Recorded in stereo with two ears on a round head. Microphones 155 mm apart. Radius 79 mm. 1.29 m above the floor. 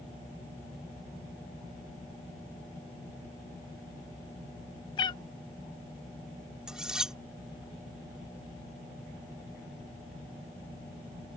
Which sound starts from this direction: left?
A cat meowing, at 5.0 s.